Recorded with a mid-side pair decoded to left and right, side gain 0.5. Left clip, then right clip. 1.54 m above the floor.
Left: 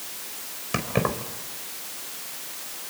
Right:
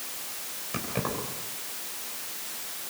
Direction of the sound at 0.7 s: 50° left.